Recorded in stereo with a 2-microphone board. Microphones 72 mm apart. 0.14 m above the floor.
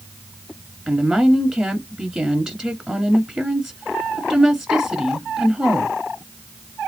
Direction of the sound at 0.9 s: 15° right (ahead or behind).